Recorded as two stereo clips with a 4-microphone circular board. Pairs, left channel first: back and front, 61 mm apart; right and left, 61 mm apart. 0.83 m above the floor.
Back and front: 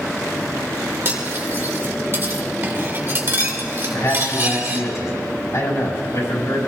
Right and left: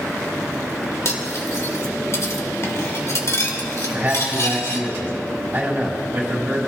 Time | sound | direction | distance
1.1 | cutlery clinking | 50° right | 1.8 m
3.9 | a man speaking | 150° left | 6 m